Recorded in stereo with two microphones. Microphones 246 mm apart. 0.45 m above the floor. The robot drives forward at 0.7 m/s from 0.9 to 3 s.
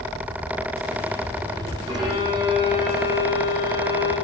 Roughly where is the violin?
Centre.